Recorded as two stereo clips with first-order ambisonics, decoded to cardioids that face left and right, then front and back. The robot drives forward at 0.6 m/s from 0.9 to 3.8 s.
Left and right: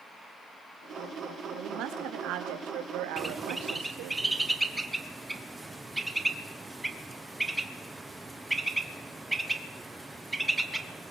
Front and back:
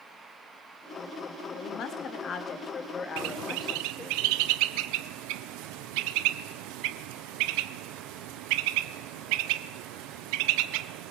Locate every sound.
1.5 s a woman speaking: 50° right, 3 m; by 4.2 s 80° right, 2.5 m
3.2 s a bird: 170° right, 0.7 m